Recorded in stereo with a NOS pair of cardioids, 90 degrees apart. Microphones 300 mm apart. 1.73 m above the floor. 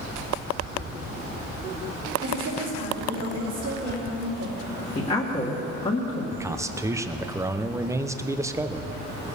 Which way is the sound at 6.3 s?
10° right.